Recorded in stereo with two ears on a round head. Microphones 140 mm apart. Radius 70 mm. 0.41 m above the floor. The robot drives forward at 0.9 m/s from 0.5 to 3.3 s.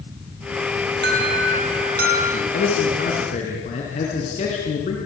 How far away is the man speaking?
About 4.5 m.